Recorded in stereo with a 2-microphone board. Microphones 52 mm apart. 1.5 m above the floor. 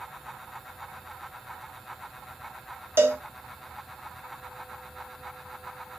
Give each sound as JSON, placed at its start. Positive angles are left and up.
{"t": 3.0, "sound": "a cowbell", "side_deg": -45, "distance_m": 0.9}